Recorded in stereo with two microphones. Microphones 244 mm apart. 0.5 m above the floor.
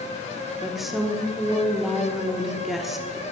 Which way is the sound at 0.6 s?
Centre (ahead or behind).